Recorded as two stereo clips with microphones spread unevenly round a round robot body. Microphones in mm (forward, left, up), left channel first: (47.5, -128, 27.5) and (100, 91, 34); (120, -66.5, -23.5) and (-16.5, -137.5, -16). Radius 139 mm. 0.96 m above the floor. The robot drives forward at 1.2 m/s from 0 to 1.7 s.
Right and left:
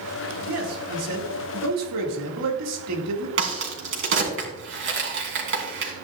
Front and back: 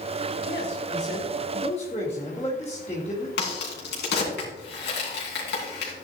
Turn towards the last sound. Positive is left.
turn(degrees=45)